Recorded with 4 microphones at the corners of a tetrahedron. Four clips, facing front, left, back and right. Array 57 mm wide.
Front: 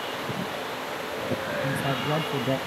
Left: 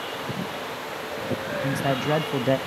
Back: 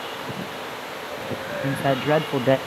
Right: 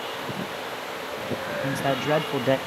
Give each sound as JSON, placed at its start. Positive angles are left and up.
{"t": 1.6, "sound": "a man speaking", "azimuth_deg": 180, "distance_m": 0.6}